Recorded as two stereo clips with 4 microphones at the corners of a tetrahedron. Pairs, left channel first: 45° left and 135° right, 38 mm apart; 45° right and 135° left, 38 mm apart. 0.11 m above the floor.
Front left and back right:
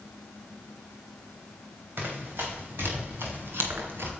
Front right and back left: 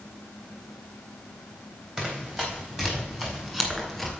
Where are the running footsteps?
160° right, 6.5 m; by 4.1 s 140° right, 4 m.